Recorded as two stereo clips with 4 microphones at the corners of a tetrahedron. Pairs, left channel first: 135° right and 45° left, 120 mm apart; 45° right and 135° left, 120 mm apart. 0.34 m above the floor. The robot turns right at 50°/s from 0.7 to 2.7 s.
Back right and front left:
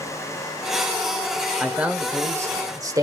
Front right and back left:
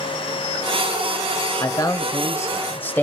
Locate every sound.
1.6 s a man speaking: 40° right, 1.1 m; by 3.0 s 15° left, 1.1 m